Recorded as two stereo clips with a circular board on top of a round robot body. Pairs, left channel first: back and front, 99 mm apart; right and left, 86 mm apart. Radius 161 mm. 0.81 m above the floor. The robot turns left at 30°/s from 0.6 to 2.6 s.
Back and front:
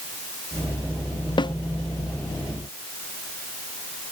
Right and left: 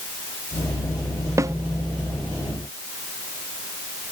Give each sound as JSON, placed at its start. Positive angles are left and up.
{"t": 1.4, "sound": "a snare drum", "azimuth_deg": 145}